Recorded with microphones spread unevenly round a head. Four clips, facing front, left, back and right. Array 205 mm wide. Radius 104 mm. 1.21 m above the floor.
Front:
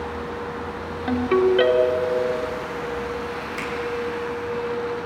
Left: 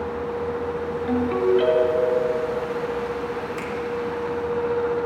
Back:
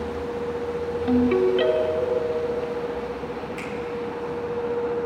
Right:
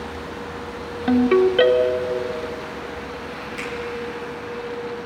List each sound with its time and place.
1.1 s a ringtone: 85° right, 1.5 m
3.6 s a finger snap: 35° left, 2.5 m